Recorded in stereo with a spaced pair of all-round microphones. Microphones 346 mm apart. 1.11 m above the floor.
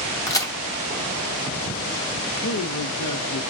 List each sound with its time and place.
0.3 s a crack: 10° left (ahead or behind), 1.1 m
2.4 s a man speaking: 55° left (ahead or behind), 0.8 m